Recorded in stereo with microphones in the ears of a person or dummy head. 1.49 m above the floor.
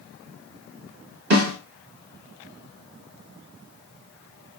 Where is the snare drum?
80° right, 1.8 m.